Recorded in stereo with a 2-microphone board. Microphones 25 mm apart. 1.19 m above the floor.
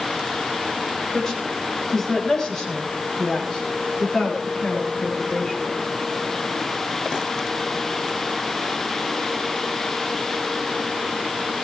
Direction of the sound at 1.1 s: 15° left (ahead or behind).